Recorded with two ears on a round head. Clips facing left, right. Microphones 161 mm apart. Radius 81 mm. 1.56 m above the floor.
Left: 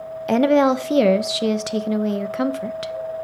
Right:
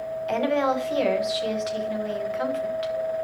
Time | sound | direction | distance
0.3 | a woman speaking | 60° left (ahead or behind) | 1.3 m